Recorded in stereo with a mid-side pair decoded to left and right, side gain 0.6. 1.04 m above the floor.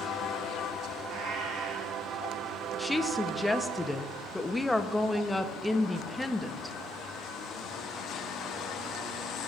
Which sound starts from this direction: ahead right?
A cat meowing, at 1.1 s.